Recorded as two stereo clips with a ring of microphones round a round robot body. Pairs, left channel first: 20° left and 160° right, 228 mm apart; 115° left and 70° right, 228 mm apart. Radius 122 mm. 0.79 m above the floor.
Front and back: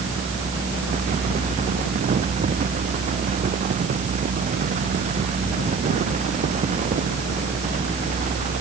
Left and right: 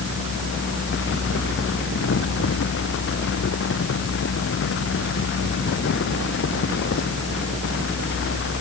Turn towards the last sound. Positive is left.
No sound to turn to.